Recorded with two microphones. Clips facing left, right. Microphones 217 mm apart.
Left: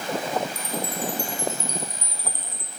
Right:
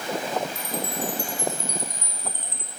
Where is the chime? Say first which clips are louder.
Even; 10° left (ahead or behind), 1.7 m.